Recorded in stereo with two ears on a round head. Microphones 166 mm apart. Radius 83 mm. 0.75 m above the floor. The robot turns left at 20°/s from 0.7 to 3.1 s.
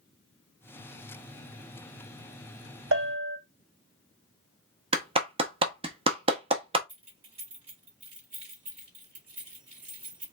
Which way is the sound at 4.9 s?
30° right (ahead or behind).